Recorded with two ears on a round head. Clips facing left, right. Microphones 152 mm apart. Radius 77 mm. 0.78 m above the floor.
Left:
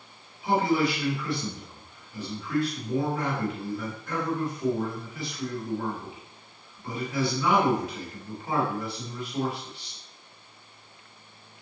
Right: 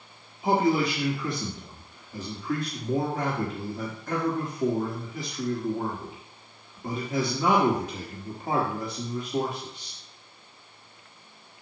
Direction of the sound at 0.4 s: 35° right (ahead or behind).